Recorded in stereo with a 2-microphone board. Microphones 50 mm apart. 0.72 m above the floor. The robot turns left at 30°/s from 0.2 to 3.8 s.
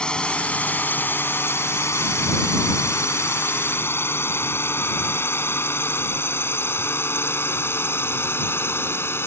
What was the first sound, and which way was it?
A drone, 20° left (ahead or behind).